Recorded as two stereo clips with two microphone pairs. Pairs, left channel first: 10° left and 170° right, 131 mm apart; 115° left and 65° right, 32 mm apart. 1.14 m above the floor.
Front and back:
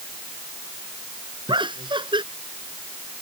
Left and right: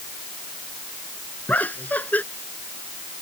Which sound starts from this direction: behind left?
Laughter, at 1.5 s.